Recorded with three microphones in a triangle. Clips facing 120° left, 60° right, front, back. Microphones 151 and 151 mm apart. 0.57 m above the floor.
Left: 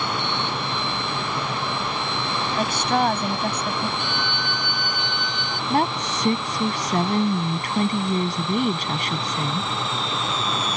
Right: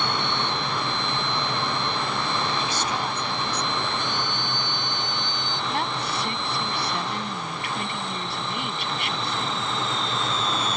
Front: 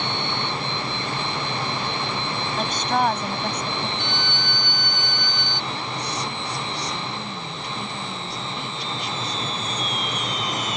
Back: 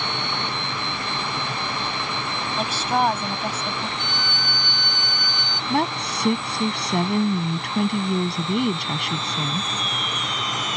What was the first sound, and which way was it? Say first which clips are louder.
A woman speaking: left 6 dB, back 1 dB; 95° left.